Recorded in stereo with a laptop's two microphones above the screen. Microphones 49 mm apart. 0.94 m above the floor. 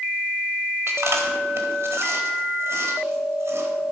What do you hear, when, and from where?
0.9 s chewing: 65° right (ahead or behind), 1.4 m